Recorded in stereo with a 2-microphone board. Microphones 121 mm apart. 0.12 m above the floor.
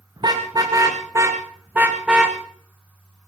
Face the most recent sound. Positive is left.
turn(degrees=-5)  # may be behind; listen again after turning